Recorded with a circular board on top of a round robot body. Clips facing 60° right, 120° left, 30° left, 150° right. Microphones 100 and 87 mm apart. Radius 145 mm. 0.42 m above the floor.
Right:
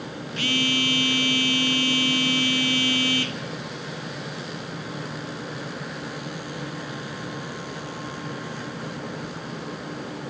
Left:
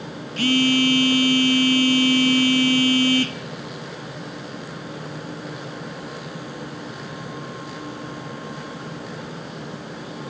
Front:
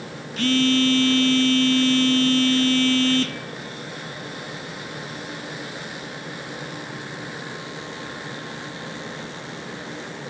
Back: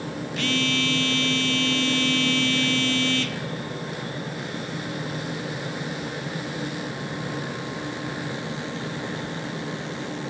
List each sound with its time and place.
0.4 s a phone buzzing: 75° left, 1.3 m